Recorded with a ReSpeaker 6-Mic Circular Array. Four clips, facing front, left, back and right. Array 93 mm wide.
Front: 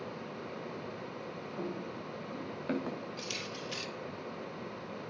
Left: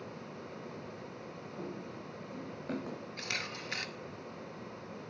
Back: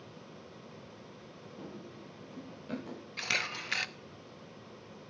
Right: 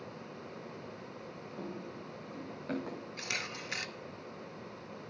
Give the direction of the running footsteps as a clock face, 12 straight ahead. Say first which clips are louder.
Even, front 7 dB; 12 o'clock.